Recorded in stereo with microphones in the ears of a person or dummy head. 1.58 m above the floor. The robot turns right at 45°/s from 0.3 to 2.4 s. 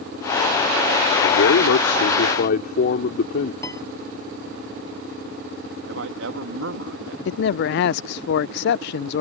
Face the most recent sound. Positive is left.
turn(degrees=50)  # may be behind; listen again after turning